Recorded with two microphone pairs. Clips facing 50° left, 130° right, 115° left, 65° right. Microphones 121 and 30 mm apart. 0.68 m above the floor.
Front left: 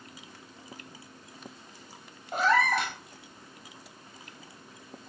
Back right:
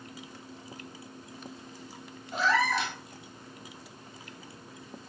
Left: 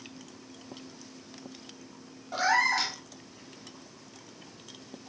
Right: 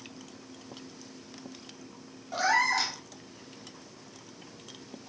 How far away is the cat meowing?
About 0.7 m.